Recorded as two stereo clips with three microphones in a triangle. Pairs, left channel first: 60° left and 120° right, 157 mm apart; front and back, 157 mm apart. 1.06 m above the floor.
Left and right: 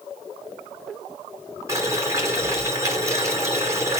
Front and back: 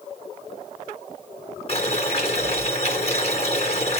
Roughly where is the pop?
I don't hear a pop.